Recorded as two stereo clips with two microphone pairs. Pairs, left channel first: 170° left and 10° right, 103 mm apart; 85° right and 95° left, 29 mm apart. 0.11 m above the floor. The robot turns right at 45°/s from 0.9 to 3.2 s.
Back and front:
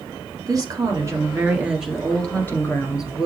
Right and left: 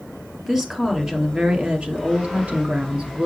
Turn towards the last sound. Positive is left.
turn(degrees=135)